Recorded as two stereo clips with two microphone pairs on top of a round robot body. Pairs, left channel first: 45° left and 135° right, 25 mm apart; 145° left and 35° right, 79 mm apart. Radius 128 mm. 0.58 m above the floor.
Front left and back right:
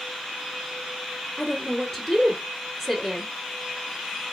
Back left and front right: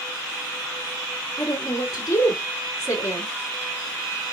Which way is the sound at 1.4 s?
115° left.